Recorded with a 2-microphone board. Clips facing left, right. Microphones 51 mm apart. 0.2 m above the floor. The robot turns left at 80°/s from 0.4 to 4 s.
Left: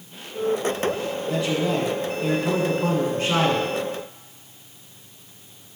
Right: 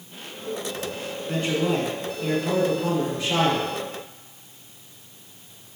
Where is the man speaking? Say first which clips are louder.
Even; 115° right, 2 m; by 3.7 s 50° left, 2 m.